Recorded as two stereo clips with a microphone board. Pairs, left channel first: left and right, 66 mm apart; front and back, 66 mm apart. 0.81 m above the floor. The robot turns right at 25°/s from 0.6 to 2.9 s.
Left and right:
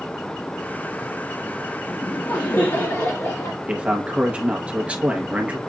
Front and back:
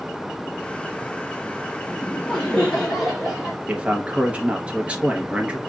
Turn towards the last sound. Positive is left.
turn(degrees=-135)